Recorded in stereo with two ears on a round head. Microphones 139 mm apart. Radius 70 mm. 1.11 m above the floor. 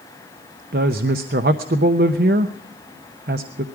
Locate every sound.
0.7 s a woman speaking: 60° right (ahead or behind), 0.8 m